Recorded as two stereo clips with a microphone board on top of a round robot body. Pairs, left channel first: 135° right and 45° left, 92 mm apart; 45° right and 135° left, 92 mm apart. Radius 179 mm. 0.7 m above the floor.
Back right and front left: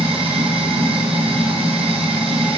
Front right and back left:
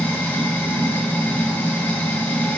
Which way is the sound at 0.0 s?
25° left.